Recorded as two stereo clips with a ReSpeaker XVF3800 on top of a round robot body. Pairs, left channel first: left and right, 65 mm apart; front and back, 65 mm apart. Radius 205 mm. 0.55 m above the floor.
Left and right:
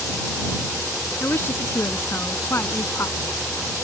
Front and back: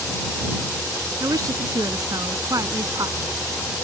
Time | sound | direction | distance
1.2 | a woman speaking | 145° left | ?